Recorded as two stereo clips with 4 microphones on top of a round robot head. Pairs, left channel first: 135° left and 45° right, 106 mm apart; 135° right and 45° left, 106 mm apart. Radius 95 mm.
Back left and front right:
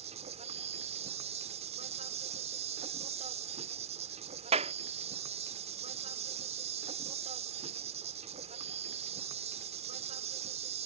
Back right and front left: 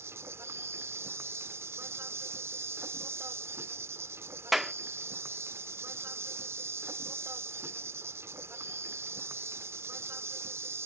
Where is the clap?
40° right.